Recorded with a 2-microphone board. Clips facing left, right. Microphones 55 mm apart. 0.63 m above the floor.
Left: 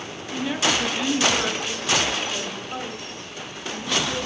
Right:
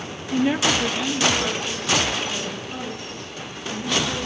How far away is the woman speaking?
About 0.6 m.